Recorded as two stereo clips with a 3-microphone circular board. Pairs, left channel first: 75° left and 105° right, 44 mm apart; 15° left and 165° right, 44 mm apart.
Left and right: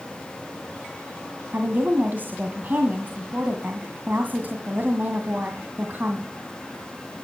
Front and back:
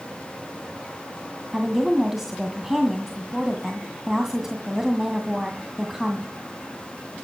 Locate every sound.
1.5 s a woman speaking: 85° right, 1.9 m